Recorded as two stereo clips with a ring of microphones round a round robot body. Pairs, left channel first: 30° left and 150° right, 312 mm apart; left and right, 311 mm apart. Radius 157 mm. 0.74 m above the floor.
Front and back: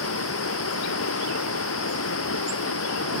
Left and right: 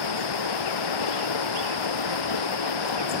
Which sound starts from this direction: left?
Running water, at 0.0 s.